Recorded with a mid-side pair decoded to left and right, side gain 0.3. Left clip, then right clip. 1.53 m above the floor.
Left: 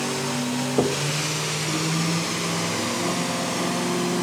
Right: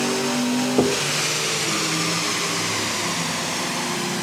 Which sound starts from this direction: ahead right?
Knocking, at 0.8 s.